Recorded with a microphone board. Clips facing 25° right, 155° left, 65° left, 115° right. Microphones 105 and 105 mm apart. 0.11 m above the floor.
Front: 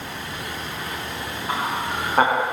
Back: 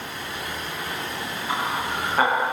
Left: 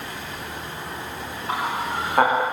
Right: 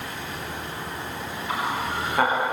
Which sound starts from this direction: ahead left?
Laughter, at 1.5 s.